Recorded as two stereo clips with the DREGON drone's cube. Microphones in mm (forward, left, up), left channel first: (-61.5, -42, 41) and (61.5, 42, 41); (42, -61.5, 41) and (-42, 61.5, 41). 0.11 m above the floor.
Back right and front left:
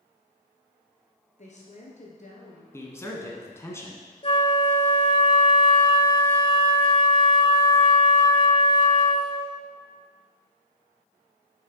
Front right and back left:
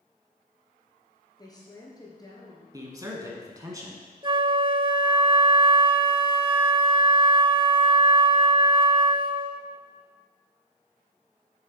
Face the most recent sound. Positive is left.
turn(degrees=175)